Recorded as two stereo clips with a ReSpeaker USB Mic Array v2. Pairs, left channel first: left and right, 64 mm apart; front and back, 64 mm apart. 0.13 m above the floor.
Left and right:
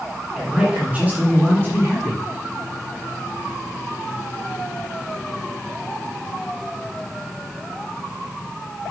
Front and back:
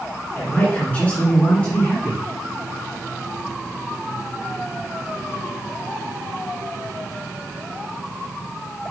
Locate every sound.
0.3 s a man speaking: 20° right, 1.9 m; by 2.2 s 75° right, 2.5 m